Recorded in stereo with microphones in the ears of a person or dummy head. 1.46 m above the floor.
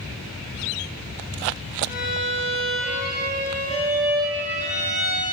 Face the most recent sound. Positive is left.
turn(degrees=-15)  # may be behind; listen again after turning